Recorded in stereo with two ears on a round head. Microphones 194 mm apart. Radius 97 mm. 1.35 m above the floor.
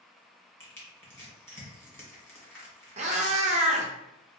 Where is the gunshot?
No gunshot in this recording.